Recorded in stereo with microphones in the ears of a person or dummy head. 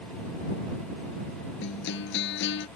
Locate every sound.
1.6 s a guitar: 60° left (ahead or behind)